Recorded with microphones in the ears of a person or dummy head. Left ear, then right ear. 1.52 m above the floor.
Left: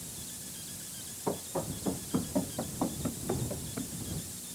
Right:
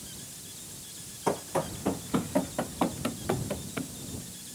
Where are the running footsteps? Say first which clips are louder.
Right 6 dB; 65° right (ahead or behind); by 3.9 s 75° right (ahead or behind).